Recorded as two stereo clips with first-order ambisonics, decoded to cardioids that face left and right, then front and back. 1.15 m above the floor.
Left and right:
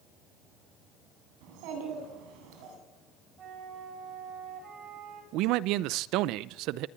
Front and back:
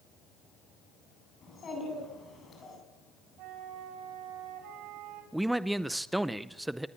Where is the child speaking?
65° right, 8.5 m.